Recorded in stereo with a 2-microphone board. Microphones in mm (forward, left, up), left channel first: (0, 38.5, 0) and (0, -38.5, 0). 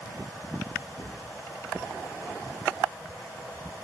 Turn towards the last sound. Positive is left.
turn(degrees=-75)  # may be behind; listen again after turning